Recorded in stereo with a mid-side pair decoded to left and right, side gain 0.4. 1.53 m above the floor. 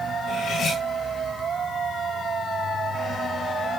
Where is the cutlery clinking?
65° left, 5.5 m.